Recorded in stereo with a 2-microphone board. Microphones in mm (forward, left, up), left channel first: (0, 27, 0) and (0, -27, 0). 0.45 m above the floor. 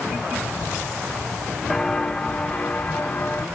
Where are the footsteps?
5° left (ahead or behind), 1.4 m; by 3.5 s 30° left (ahead or behind), 3 m.